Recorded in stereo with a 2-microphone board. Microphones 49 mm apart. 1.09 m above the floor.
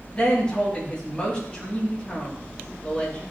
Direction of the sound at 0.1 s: 20° left (ahead or behind).